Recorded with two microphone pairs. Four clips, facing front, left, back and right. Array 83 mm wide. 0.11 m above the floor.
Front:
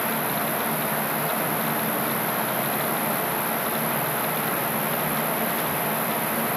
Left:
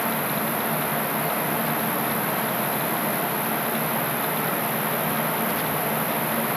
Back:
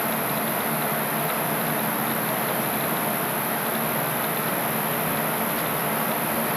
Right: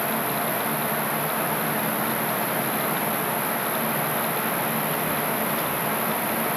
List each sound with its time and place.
0.0 s an insect: 110° right, 5 m